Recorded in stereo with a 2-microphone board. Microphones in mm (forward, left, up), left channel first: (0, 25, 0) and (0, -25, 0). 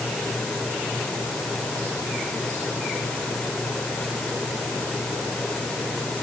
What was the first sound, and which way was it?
Only background noise.